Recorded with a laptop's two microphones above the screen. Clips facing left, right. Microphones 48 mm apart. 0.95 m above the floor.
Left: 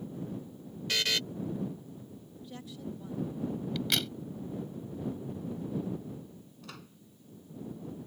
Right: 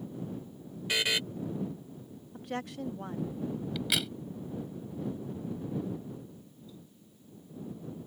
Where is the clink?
No clink in this recording.